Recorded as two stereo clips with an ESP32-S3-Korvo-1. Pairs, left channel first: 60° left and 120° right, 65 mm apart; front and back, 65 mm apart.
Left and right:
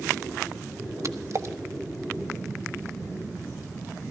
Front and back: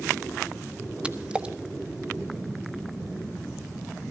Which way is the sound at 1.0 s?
110° right.